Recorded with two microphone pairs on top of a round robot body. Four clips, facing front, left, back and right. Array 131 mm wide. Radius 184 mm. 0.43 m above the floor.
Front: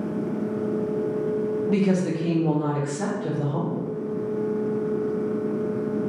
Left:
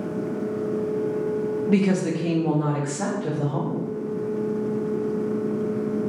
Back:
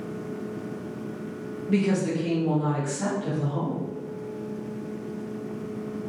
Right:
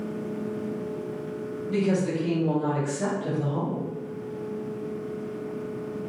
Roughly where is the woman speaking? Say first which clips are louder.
Left 2 dB, back 1 dB; left.